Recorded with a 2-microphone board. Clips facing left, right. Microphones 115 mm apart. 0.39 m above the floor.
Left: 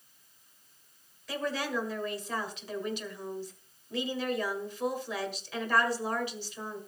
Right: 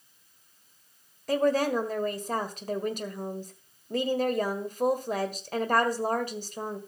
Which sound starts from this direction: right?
A woman speaking, at 1.3 s.